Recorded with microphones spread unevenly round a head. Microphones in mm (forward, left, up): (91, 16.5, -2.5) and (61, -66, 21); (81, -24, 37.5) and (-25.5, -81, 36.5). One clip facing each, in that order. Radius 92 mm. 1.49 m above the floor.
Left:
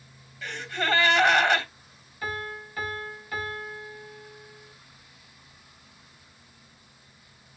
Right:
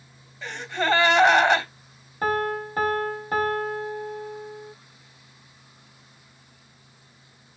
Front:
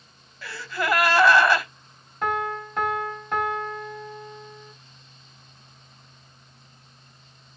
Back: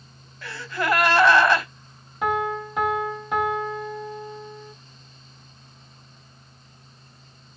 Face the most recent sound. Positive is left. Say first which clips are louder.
# right 10 dB, back 2 dB
turn(degrees=-70)